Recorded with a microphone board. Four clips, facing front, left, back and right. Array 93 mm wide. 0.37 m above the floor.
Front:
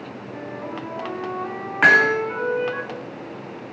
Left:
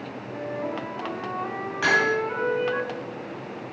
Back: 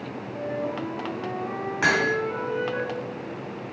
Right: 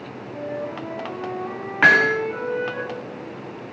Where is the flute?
55° left, 2.5 m.